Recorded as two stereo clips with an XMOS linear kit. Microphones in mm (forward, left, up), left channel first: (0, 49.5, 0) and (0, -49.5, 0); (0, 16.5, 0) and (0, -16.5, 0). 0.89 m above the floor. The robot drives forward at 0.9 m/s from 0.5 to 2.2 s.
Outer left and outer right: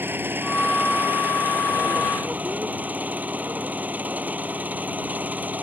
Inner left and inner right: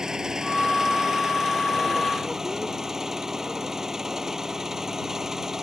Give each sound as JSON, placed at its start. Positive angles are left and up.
{"t": 0.0, "sound": "an engine running", "side_deg": -20}